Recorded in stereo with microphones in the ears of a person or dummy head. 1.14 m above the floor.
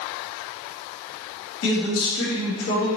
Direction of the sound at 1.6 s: 80° left.